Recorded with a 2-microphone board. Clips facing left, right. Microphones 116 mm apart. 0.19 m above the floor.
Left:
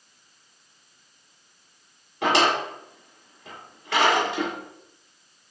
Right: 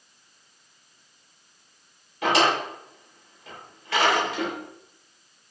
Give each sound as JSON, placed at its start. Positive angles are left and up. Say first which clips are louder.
{"t": 2.2, "sound": "a drawer", "louder": "even", "side_deg": 65, "distance_m": 1.5}